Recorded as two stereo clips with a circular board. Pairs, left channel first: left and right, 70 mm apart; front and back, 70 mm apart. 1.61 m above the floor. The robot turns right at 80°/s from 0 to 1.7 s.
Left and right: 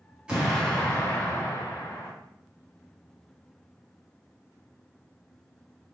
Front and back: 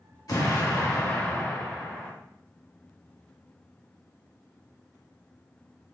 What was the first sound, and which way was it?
An explosion, 20° right.